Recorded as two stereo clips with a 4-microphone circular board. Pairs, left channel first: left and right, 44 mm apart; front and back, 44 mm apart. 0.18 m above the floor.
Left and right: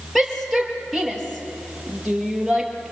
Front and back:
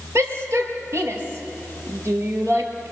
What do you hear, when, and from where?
0.1 s a shout: 175° left, 4.5 m